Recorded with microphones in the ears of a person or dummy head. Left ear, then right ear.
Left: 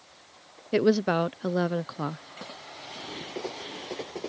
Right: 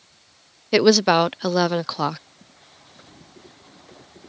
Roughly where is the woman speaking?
Right.